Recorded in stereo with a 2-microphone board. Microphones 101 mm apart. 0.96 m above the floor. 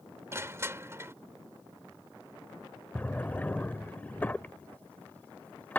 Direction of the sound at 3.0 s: 15° left (ahead or behind).